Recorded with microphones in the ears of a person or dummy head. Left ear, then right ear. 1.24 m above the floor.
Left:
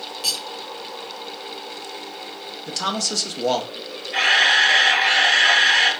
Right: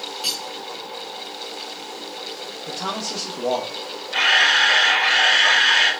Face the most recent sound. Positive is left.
turn(degrees=-5)  # may be behind; listen again after turning